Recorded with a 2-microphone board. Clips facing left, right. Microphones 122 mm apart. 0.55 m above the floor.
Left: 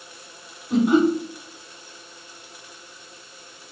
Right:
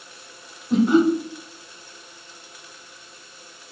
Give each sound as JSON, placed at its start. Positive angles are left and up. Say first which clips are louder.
{"t": 0.7, "sound": "laughter", "louder": "right 1 dB", "side_deg": 5, "distance_m": 1.7}